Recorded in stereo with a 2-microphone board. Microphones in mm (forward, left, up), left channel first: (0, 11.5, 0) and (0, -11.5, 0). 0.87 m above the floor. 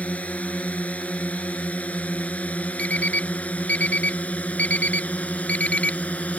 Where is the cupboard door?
I don't hear a cupboard door.